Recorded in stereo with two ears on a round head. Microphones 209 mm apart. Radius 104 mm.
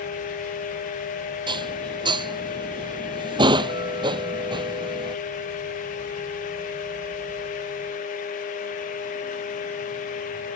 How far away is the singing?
No singing in this recording.